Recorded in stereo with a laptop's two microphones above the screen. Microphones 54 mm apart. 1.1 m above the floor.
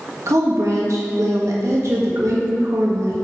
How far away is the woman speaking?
About 1.5 m.